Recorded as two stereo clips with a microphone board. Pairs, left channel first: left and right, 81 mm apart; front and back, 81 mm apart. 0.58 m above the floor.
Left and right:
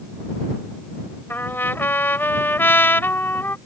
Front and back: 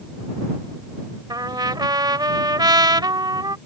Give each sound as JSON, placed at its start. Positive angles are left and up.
{"t": 1.3, "sound": "a trumpet", "azimuth_deg": 150}